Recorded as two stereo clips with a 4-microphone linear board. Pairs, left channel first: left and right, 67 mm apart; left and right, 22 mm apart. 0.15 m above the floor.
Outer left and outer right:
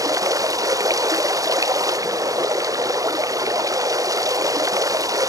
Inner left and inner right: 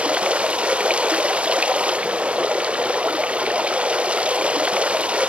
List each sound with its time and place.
0.0 s running water: 60° right (ahead or behind)